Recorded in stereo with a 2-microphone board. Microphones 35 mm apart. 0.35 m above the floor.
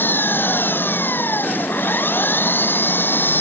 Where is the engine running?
85° left.